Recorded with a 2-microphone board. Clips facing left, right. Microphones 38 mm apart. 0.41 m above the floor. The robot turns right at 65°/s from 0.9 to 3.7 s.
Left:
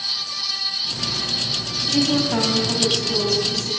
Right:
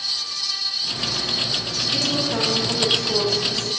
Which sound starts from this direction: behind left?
A woman speaking, at 1.9 s.